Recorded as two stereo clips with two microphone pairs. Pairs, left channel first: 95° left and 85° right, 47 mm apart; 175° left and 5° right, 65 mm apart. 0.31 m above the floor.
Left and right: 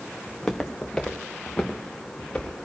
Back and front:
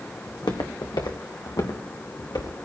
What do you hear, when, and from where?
0.3 s footsteps: 175° left, 1.5 m; by 2.6 s 165° left, 3.5 m